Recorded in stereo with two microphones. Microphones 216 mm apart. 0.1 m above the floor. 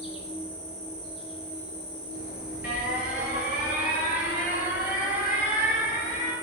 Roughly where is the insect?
Left.